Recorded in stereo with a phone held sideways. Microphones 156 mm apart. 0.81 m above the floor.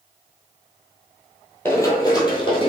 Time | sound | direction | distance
1.6 | running footsteps | 15° left (ahead or behind) | 1.3 m